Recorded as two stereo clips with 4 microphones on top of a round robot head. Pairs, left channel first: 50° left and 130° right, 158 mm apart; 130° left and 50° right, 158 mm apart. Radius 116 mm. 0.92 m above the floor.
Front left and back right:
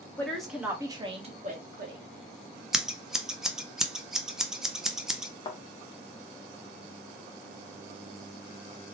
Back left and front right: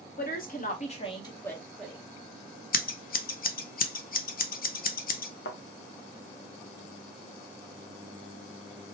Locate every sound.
0.2 s a woman speaking: 130° left, 1.3 m; by 2.0 s 130° right, 1.3 m
2.7 s scissors: 140° left, 0.6 m
5.5 s a thud: 115° left, 0.6 m